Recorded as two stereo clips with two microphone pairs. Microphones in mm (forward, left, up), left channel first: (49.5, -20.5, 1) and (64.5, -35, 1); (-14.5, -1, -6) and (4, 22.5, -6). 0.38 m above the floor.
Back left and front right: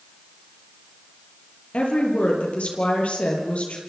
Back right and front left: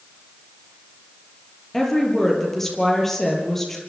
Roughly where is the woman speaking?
Behind left.